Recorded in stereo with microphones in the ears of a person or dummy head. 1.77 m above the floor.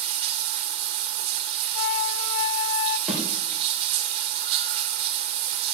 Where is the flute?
75° left (ahead or behind), 0.9 m.